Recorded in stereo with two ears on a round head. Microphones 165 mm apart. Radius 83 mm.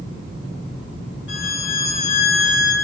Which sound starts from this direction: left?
A violin, at 1.3 s.